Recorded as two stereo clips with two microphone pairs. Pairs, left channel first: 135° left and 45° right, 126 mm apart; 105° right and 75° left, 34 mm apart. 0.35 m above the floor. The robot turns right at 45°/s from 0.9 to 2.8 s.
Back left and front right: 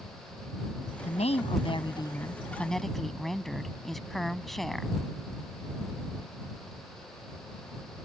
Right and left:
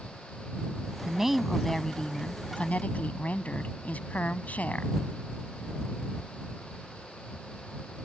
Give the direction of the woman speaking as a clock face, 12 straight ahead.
7 o'clock.